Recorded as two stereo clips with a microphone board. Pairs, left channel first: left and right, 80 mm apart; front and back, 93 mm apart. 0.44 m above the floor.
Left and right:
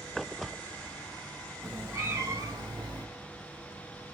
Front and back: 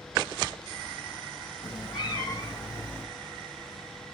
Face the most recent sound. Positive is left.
turn(degrees=-60)